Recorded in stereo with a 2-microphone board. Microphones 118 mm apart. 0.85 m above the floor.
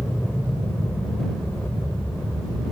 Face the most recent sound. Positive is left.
turn(degrees=15)  # may be behind; listen again after turning